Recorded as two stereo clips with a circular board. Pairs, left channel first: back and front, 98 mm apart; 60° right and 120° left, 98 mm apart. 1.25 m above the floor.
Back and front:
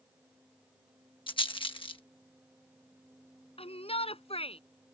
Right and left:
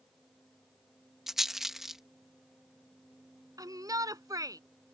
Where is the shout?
175° left.